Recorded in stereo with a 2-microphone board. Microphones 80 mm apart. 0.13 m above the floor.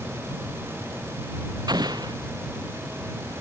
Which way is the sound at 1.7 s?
60° right (ahead or behind).